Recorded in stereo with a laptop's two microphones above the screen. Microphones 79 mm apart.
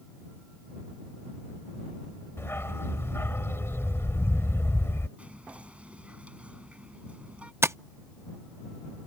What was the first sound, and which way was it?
A dog barking, 35° left (ahead or behind).